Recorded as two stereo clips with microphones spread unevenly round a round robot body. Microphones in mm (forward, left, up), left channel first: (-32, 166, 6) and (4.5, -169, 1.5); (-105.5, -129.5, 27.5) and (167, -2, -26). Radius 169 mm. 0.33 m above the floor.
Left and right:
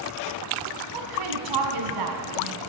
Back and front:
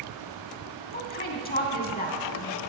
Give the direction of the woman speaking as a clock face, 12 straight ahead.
3 o'clock.